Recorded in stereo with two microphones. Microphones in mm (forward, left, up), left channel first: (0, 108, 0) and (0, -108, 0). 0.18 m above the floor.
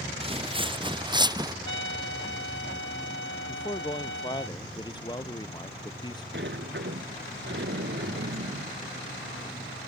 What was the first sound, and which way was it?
Footsteps, 25° right (ahead or behind).